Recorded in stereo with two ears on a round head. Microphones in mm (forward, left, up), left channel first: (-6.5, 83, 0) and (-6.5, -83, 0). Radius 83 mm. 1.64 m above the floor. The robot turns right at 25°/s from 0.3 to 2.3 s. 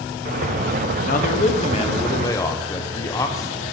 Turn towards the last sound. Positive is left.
turn(degrees=160)